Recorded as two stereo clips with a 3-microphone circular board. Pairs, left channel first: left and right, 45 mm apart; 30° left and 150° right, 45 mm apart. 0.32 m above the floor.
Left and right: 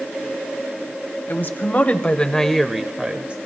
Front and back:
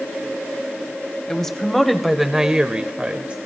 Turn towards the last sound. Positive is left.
turn(degrees=-115)